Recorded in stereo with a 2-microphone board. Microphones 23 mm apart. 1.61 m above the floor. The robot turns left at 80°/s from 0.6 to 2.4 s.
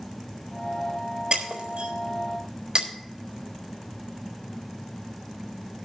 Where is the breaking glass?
55° right (ahead or behind), 3.5 m; by 2.9 s 35° right (ahead or behind), 3.5 m.